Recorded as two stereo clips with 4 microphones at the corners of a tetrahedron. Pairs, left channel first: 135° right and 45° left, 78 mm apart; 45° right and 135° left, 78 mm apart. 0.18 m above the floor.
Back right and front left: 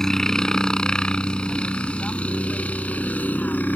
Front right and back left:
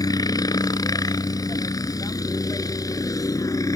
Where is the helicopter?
55° right; by 3.8 s 70° right.